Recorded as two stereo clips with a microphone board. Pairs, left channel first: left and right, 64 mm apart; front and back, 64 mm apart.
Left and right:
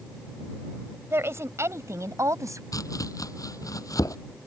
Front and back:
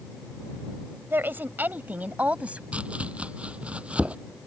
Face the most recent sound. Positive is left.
turn(degrees=110)